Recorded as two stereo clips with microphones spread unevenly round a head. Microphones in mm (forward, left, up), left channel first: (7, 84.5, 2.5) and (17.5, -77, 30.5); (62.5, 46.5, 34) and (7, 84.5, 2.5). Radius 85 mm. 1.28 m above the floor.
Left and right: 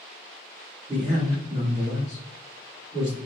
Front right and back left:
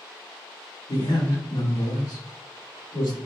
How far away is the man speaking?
About 1.8 m.